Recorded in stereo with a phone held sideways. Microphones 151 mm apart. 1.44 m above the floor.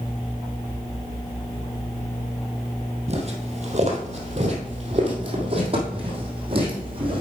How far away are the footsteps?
About 1.9 m.